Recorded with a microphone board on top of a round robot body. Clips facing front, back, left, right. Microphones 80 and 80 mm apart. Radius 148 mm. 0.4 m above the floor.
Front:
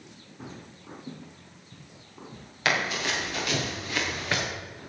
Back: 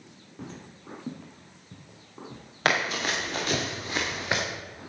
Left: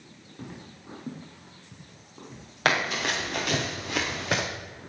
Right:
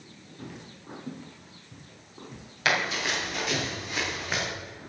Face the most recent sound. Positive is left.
turn(degrees=105)